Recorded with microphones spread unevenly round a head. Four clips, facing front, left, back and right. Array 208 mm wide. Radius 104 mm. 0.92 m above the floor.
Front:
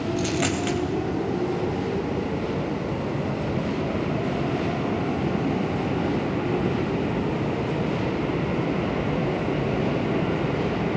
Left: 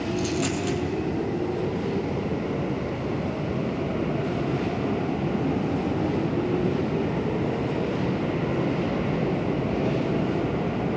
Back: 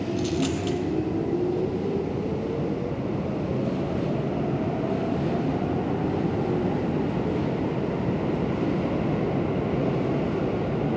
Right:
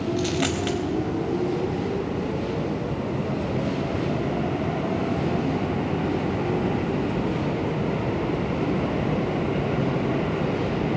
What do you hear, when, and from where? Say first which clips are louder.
0.2 s a dropped coin: right 1 dB, even; 45° right, 3 m